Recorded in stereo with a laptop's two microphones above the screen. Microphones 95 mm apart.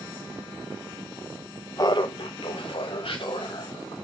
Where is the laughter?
35° left (ahead or behind), 0.7 m; by 4.0 s 55° left (ahead or behind), 3.5 m.